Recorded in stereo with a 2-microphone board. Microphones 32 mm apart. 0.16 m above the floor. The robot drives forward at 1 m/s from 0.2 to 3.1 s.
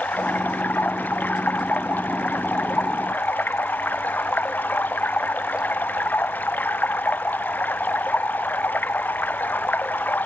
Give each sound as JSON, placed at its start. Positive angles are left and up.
{"t": 0.0, "sound": "running water", "side_deg": 60}